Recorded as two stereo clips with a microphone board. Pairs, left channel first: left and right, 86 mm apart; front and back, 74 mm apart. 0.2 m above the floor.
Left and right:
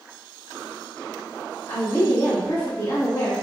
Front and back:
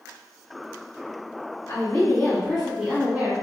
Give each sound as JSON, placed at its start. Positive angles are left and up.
{"t": 1.7, "sound": "a woman speaking", "azimuth_deg": 50, "distance_m": 1.4}